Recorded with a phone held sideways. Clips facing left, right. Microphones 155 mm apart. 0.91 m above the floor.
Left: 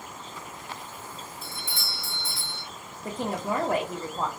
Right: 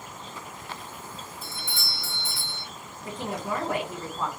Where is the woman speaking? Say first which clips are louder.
Left 2 dB; 40° left (ahead or behind), 0.8 m.